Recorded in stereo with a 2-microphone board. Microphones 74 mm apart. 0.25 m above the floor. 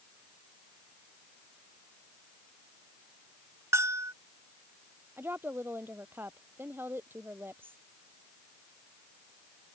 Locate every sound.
3.7 s a bell: 40° right (ahead or behind)
5.2 s a woman speaking: 30° right (ahead or behind)